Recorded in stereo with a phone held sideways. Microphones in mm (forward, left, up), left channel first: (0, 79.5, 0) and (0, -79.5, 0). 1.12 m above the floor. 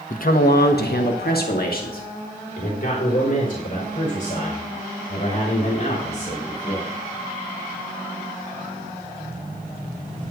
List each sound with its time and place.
0.1 s a man speaking: 55° left (ahead or behind), 1.0 m; by 6.9 s 50° left (ahead or behind), 7.5 m